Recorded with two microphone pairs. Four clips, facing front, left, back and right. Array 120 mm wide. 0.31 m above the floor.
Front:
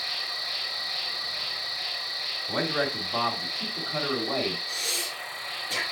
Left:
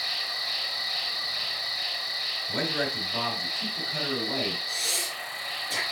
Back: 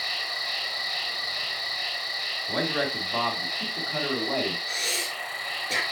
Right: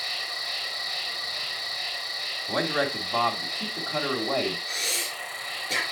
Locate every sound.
0.0 s an insect: 175° right, 2.5 m
2.5 s a man speaking: 90° right, 2.5 m
4.7 s breathing: 145° right, 3.5 m